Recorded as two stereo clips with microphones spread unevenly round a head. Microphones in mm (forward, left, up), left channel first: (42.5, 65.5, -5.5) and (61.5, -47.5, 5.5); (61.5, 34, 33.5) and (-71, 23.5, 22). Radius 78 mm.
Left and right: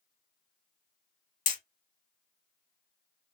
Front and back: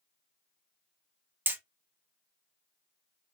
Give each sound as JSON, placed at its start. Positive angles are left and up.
{"t": 1.5, "sound": "hammering", "azimuth_deg": 110, "distance_m": 1.2}